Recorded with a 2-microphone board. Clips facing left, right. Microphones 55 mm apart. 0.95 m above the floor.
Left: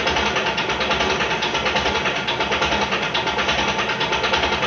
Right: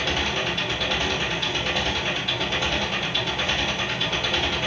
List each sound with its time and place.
0.0 s an engine running: 65° left (ahead or behind), 1.9 m